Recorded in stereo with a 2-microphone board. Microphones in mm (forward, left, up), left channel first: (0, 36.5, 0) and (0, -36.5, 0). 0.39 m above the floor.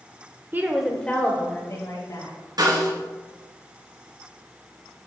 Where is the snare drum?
70° right (ahead or behind), 2.5 m.